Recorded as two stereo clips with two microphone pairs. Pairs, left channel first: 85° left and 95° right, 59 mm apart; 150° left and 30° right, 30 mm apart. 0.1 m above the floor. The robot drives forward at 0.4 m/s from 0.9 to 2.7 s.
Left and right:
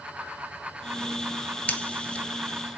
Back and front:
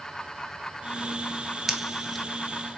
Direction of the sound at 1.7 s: 40° left.